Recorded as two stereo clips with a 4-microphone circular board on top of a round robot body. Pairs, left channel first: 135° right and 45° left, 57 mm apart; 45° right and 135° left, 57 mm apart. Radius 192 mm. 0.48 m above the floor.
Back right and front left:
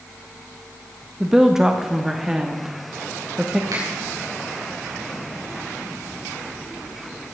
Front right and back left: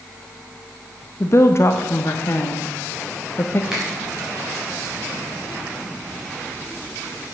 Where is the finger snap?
55° left, 4.5 m.